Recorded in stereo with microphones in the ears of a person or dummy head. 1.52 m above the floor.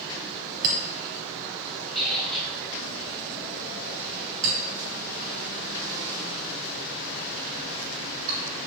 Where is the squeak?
Centre (ahead or behind), 0.7 m.